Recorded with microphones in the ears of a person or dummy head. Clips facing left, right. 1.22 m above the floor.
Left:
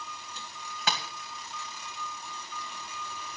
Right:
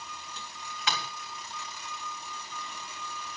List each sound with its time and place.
0.9 s tapping: 35° left (ahead or behind), 2.5 m